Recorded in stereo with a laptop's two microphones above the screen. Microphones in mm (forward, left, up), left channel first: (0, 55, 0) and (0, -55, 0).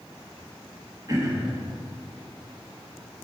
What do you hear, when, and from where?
1.1 s throat clearing: 35° right (ahead or behind), 1.3 m